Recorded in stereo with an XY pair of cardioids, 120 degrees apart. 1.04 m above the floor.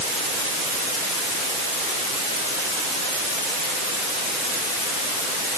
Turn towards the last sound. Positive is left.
No sound to turn to.